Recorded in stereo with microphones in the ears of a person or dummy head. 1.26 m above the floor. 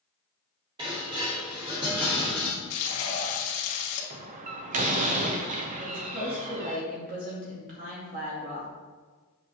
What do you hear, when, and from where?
0.8 s dishes clattering: 25° right (ahead or behind), 2.5 m
2.7 s frying: 90° left, 1.8 m
4.1 s a door slam: 35° right (ahead or behind), 0.7 m
5.8 s a woman speaking: 45° right (ahead or behind), 2.5 m